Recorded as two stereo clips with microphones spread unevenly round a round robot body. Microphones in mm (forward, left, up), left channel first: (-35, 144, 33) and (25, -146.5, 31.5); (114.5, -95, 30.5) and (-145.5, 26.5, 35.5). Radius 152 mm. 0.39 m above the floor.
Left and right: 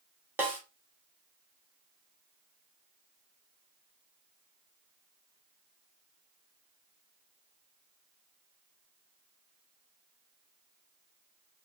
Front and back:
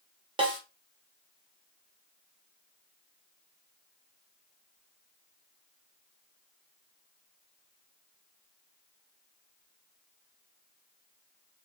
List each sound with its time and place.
0.4 s a snare drum: 150° right, 0.9 m